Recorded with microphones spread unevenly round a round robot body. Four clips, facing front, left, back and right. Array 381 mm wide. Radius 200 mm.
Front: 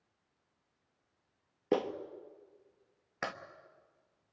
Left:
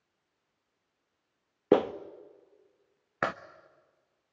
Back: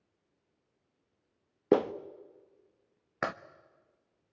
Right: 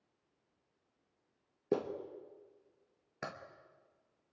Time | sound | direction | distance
1.7 | a clap | 95° left | 1.1 m